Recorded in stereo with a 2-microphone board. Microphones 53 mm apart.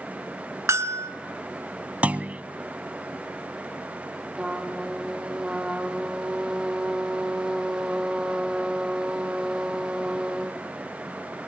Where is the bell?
70° right (ahead or behind), 1.3 m.